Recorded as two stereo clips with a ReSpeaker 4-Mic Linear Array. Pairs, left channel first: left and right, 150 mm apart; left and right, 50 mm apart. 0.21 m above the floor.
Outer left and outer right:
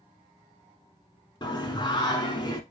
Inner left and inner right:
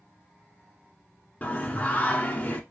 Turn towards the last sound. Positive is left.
turn(degrees=30)  # may be behind; listen again after turning